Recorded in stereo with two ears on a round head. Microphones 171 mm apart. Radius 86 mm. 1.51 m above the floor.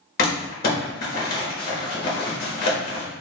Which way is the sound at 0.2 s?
50° left (ahead or behind).